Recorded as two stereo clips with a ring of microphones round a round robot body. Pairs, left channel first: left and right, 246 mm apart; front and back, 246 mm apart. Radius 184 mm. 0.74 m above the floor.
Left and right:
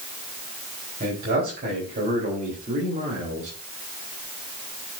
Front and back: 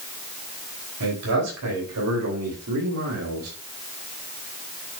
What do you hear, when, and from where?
1.0 s a man speaking: 155° right, 4.5 m